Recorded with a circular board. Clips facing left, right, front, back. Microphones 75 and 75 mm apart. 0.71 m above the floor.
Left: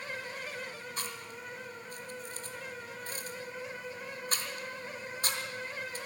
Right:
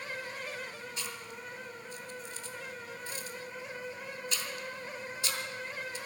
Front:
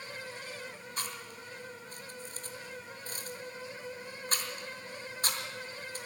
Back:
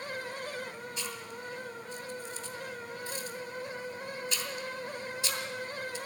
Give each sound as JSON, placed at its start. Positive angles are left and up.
{"t": 1.0, "sound": "chewing", "azimuth_deg": 45, "distance_m": 2.5}